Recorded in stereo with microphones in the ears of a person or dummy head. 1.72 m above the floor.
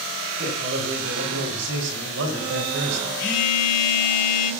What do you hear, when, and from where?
0.4 s a man speaking: 70° right (ahead or behind), 6 m
3.2 s a phone buzzing: 50° left (ahead or behind), 4 m